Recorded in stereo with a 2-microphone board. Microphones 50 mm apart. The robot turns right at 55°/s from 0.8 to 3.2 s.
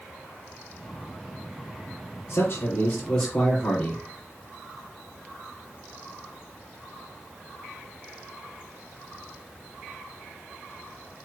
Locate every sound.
2.3 s a man speaking: 115° left, 5 m; by 4.0 s 165° left, 5 m